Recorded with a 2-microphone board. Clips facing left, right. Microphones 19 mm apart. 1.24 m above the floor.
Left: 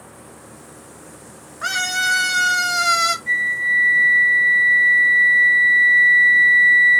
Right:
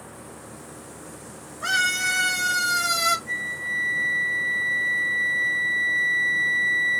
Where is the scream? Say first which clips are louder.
Left 2 dB; 50° left (ahead or behind), 1.8 m; by 3.2 s 25° left (ahead or behind), 0.9 m.